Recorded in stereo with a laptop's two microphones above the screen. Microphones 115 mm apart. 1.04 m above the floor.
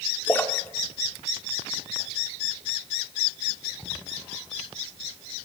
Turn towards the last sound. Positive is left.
turn(degrees=15)  # may be behind; listen again after turning